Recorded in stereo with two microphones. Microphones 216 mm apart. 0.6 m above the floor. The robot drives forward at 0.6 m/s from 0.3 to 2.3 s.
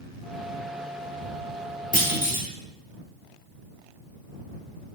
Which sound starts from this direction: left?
A clunk, at 1.9 s.